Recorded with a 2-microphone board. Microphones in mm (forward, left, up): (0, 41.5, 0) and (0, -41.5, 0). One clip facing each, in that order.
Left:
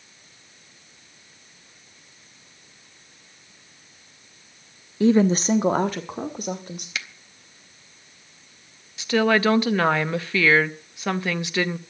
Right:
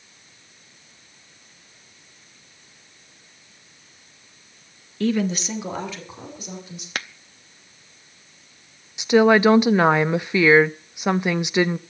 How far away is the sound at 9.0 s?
About 0.6 m.